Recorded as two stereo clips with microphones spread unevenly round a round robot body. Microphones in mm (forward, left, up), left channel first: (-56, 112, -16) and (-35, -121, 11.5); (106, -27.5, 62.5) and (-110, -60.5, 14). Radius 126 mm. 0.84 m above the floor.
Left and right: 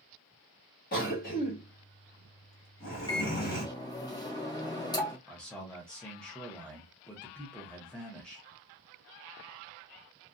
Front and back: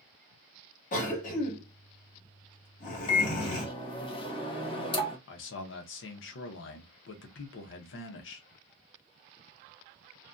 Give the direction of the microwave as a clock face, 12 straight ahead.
9 o'clock.